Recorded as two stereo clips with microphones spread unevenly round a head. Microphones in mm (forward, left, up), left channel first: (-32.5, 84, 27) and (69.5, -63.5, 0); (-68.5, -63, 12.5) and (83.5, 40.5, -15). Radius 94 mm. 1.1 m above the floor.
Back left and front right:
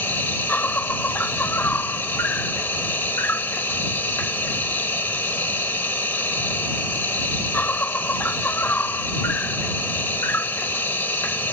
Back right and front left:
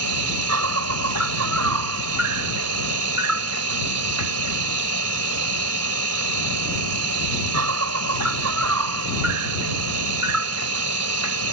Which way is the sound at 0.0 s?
45° left.